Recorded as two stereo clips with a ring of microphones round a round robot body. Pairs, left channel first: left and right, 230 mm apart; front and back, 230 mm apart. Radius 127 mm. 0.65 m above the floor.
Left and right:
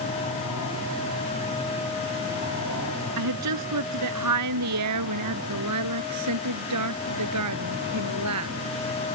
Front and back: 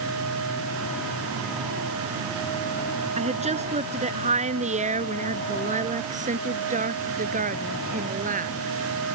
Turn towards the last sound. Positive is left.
turn(degrees=-125)